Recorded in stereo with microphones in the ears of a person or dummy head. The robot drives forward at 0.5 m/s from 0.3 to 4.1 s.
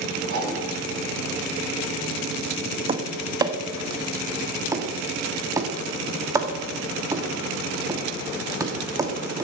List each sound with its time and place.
0.3 s a whoosh: 55° right (ahead or behind), 7 m
2.9 s tapping: 30° right (ahead or behind), 0.8 m; by 9.4 s 15° right (ahead or behind), 1.4 m